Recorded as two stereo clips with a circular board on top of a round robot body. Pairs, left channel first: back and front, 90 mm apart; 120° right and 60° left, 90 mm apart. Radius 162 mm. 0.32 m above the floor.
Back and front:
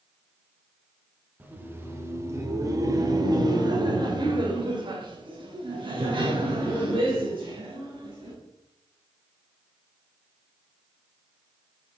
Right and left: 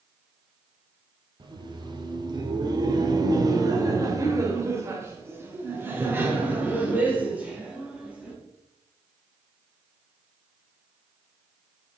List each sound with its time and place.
1.4 s laughter: 65° left, 2 m; by 8.3 s 15° right, 4 m